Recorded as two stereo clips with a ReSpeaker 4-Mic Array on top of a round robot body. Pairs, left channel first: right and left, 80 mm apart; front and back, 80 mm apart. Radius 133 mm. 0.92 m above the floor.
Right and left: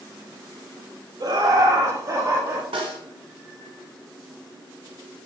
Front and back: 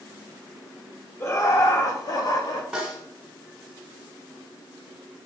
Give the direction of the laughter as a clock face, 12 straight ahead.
10 o'clock.